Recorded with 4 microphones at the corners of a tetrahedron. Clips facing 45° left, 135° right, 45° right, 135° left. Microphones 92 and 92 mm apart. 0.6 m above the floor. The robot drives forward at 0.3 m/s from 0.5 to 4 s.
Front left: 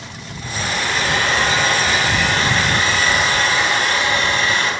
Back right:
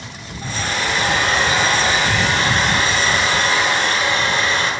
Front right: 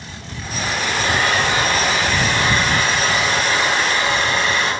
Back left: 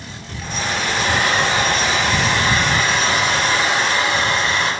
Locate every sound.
0.4 s a hair dryer: 155° left, 3 m; by 4.7 s 160° left, 3.5 m